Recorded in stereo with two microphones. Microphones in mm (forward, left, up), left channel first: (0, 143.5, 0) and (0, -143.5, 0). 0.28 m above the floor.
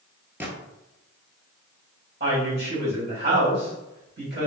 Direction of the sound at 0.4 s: 5° right (ahead or behind).